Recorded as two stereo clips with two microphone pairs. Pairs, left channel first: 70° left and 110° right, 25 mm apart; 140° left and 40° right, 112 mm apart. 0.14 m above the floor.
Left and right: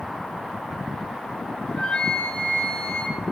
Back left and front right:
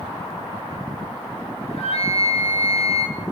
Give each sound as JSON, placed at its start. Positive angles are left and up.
{"t": 1.7, "sound": "a flute", "azimuth_deg": 125, "distance_m": 1.7}